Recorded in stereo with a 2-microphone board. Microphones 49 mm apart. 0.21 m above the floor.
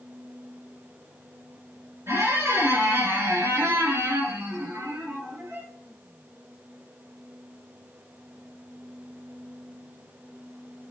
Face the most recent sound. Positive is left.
turn(degrees=-65)  # may be behind; listen again after turning